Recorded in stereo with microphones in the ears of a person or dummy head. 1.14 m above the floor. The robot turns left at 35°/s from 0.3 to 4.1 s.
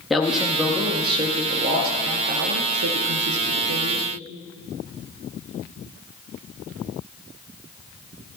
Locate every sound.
0.1 s a man speaking: 10° left, 1.2 m; by 4.1 s 125° right, 1.2 m